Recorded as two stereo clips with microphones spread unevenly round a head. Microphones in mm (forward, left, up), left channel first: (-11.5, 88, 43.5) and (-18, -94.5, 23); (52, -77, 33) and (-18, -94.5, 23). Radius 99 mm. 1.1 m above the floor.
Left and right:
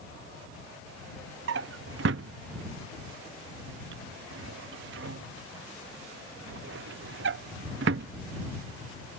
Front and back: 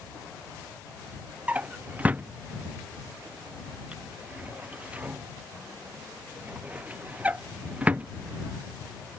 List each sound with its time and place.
1.5 s a drawer: 95° right